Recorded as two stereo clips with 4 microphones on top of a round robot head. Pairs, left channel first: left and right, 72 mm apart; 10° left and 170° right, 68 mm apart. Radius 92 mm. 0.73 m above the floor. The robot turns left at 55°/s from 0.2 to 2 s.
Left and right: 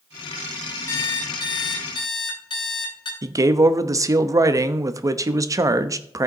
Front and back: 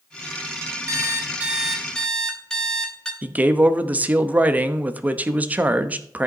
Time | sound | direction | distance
0.9 | an alarm clock | 150° left | 2.5 m
3.2 | a man speaking | 110° right | 0.8 m